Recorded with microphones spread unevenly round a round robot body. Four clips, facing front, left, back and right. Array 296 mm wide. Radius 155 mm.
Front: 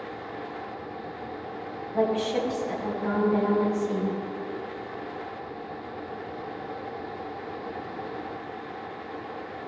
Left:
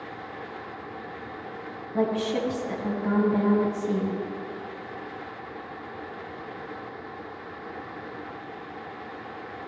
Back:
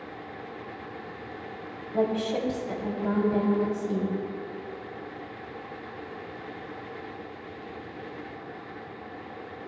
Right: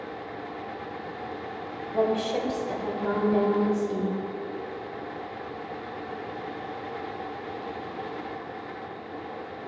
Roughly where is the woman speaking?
Behind right.